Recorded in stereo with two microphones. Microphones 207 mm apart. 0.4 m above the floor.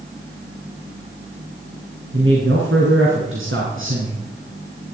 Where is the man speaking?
75° right (ahead or behind), 4.5 m.